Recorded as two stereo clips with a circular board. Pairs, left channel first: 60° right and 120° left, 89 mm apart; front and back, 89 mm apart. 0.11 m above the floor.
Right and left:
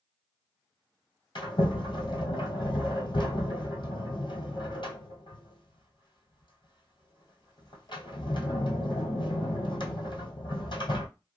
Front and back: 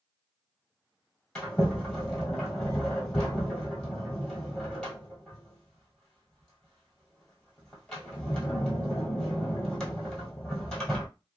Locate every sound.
1.4 s a sliding door: 80° right, 1.2 m